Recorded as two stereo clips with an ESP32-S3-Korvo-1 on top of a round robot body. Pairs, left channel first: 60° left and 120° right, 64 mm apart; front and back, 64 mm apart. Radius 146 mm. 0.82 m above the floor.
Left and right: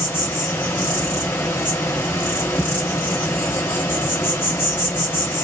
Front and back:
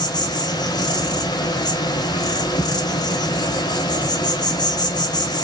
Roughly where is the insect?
Ahead.